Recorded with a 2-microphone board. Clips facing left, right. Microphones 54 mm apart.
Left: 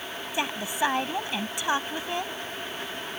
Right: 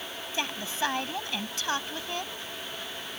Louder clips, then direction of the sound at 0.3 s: Left 4 dB; 15° left (ahead or behind).